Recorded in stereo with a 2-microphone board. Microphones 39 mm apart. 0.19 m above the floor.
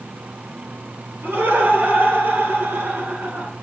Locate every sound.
1.2 s laughter: 60° right (ahead or behind), 3.5 m; by 3.5 s 55° right (ahead or behind), 2 m